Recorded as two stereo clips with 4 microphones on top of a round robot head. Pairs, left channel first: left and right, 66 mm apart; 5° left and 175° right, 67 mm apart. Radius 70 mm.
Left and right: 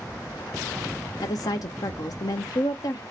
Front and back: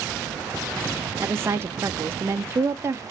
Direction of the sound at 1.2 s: 130° left.